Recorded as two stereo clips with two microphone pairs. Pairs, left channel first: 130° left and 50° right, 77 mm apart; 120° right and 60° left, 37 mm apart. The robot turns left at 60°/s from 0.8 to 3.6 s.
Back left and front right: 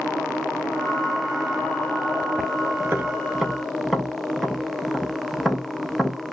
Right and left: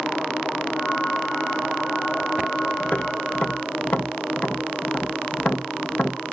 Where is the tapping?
95° right, 1.1 m; by 6.3 s 140° right, 1.1 m.